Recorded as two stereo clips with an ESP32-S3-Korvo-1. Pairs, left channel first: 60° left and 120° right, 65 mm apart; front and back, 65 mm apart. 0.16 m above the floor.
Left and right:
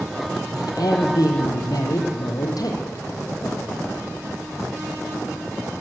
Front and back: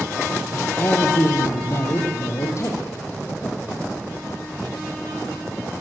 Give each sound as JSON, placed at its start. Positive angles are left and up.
{"t": 0.5, "sound": "a man speaking", "azimuth_deg": 55, "distance_m": 4.0}